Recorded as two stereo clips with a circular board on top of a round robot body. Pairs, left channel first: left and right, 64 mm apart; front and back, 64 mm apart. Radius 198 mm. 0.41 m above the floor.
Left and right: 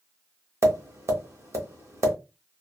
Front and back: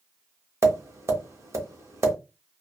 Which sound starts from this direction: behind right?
Tapping, at 0.6 s.